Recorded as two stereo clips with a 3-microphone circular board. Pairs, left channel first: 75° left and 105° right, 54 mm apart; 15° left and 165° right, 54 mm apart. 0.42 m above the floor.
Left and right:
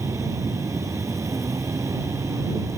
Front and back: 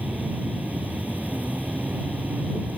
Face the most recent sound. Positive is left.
turn(degrees=-105)